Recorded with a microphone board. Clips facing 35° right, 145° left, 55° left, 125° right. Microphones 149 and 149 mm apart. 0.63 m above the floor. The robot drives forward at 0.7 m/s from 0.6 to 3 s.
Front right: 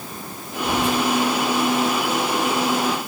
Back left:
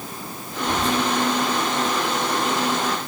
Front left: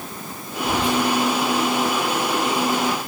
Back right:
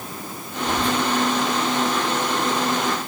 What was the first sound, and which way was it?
Whispering, straight ahead.